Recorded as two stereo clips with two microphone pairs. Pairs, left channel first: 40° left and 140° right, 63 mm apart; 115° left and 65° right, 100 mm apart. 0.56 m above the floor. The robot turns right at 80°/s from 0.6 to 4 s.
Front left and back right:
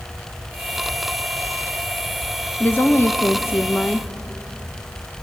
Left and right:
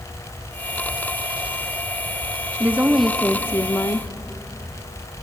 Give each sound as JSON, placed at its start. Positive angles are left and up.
{"t": 2.6, "sound": "a woman speaking", "azimuth_deg": -10, "distance_m": 0.8}